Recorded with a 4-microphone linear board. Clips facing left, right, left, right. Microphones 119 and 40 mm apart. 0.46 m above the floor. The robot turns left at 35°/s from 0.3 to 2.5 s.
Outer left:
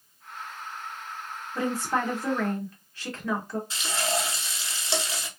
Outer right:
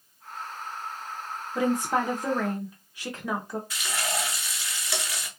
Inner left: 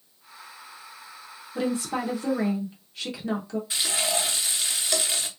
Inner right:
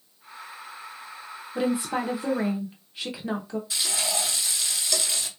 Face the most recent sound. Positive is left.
turn(degrees=30)  # may be behind; listen again after turning